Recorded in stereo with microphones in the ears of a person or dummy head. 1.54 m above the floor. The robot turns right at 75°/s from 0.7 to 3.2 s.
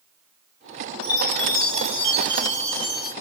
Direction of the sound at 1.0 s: 50° left.